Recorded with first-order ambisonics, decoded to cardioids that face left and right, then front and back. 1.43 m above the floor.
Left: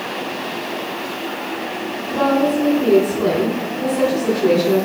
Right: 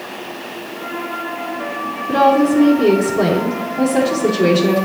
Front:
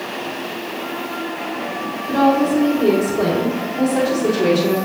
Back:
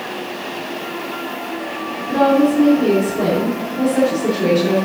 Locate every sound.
2.1 s a woman speaking: 85° right, 3.5 m